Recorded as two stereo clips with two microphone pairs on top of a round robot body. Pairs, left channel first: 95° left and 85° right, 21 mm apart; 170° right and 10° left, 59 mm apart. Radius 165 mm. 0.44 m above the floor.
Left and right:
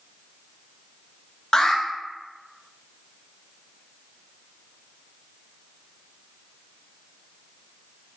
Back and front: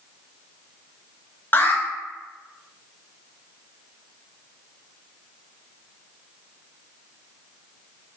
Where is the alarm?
145° left, 1.1 m.